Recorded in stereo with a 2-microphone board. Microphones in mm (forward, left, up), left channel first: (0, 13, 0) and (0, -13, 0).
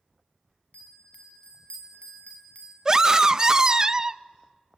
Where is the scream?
30° right (ahead or behind), 0.6 m.